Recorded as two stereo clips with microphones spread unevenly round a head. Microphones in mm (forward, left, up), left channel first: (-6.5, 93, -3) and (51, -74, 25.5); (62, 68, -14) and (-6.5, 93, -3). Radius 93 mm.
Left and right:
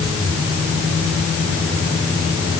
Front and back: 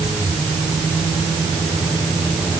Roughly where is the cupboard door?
No cupboard door in this recording.